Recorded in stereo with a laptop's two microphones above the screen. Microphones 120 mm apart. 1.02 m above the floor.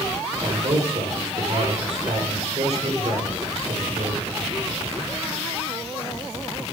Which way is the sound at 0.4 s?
75° right (ahead or behind).